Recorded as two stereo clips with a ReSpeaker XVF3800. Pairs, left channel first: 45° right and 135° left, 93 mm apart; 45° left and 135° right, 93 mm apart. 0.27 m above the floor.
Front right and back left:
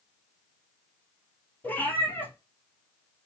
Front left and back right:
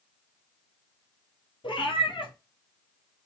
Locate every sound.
1.6 s a cat meowing: 25° left, 1.7 m